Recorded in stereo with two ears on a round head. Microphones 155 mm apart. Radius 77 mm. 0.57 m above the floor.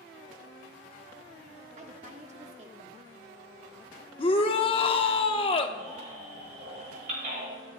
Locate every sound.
1.8 s a woman speaking: 40° right (ahead or behind), 1.1 m
4.2 s a shout: 30° left (ahead or behind), 0.9 m
5.8 s a baby crying: 50° right (ahead or behind), 6 m